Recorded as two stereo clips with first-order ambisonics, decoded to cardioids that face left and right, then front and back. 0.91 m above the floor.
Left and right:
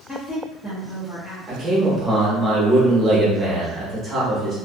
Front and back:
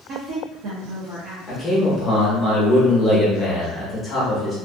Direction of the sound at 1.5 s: 55° right.